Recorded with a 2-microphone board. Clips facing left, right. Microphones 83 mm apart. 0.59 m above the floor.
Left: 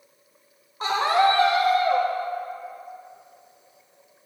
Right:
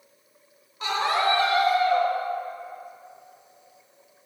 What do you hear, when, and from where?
0.8 s a scream: 35° left (ahead or behind), 1.1 m; by 2.1 s 55° left (ahead or behind), 2 m